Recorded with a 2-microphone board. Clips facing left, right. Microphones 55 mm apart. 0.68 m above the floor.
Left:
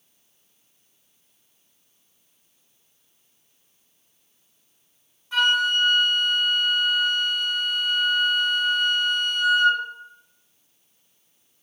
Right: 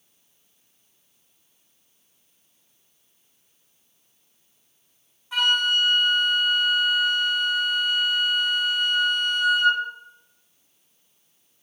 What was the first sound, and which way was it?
A flute, 5° right (ahead or behind).